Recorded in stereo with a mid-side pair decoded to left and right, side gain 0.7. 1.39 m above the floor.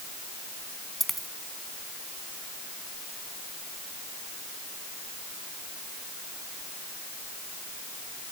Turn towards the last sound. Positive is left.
turn(degrees=-5)